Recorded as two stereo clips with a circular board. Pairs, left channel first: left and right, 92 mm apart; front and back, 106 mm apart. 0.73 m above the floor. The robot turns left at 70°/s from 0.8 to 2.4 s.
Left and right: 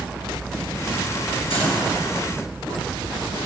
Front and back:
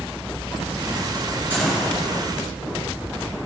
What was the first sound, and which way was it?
A gunshot, 105° left.